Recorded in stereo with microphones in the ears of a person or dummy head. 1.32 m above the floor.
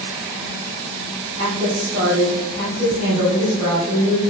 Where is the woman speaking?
30° right (ahead or behind), 1.0 m.